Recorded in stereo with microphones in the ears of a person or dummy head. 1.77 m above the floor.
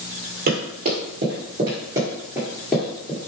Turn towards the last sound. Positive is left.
turn(degrees=10)  # may be behind; listen again after turning